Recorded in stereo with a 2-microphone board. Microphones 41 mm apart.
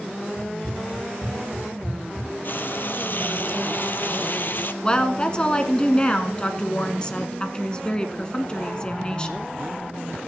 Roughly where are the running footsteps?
Centre.